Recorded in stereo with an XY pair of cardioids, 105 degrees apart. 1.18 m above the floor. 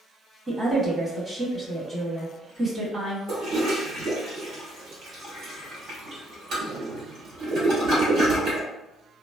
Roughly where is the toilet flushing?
Ahead right.